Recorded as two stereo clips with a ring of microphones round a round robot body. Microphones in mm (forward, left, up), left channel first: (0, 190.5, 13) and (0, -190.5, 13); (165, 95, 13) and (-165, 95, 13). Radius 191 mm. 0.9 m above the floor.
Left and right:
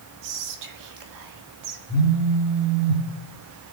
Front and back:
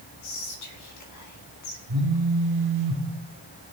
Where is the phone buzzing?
150° right, 3 m.